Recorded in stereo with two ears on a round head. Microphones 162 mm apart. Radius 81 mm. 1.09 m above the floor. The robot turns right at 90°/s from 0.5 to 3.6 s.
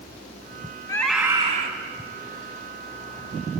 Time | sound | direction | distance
0.9 | a scream | 155° left | 5 m